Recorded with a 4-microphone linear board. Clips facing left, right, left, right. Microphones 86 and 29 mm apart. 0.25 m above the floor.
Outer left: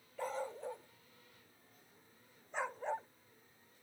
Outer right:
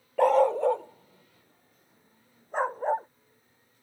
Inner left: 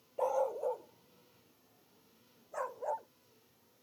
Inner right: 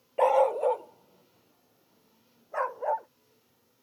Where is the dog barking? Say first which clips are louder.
Outer right 20 dB, inner right 10 dB; 80° right; by 3.1 s 45° right (ahead or behind).